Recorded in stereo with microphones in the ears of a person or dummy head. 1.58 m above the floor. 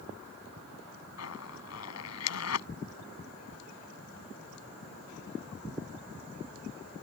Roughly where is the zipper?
Left.